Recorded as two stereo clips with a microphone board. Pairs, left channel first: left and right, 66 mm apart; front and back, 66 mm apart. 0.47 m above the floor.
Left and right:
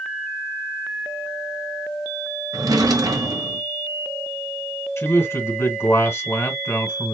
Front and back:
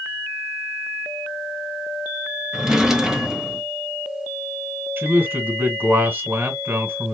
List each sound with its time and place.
2.5 s a drawer: 100° right, 0.9 m
5.0 s a man speaking: 125° left, 1.6 m